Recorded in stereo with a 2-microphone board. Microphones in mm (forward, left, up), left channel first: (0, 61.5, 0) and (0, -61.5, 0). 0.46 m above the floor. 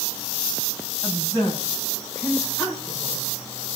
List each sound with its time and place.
1.0 s a woman speaking: 25° left (ahead or behind), 3 m